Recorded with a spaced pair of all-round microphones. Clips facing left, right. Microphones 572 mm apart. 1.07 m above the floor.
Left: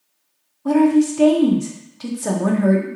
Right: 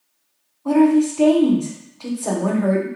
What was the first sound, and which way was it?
A woman speaking, 45° left (ahead or behind).